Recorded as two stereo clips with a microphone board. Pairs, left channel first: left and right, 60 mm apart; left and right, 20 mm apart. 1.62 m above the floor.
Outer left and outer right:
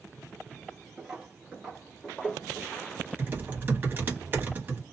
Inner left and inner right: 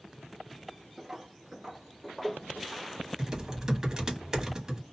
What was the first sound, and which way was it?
Footsteps, 10° right (ahead or behind).